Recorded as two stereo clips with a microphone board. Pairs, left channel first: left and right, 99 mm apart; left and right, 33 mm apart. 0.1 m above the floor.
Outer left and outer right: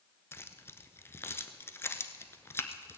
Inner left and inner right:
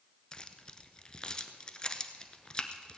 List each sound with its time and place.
0.3 s keys jangling: 25° left (ahead or behind), 0.8 m